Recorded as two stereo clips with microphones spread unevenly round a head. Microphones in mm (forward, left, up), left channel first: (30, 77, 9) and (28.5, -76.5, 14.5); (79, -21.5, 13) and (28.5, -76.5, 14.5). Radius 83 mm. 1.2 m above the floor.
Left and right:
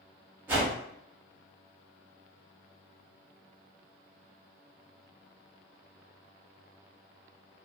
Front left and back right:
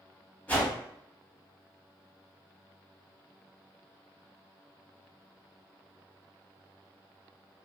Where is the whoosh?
20° right, 0.9 m.